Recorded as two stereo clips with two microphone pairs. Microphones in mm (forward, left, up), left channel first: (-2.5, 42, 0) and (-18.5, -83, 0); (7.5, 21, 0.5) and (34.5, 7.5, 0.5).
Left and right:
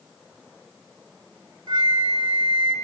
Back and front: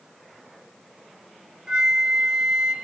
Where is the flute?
75° right, 0.9 m.